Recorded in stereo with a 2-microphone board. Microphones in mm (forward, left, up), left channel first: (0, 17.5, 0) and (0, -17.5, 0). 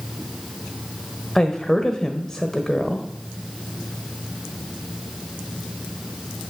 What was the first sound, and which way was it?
A woman speaking, 15° left (ahead or behind).